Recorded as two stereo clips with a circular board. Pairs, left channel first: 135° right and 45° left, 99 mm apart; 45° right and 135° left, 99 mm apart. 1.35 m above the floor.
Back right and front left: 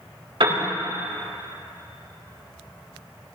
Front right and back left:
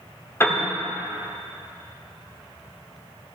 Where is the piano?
20° left, 2.5 m.